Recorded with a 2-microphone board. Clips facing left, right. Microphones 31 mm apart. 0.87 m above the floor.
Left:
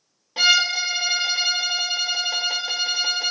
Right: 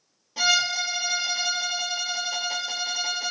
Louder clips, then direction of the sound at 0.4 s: Left 5 dB; 35° left (ahead or behind).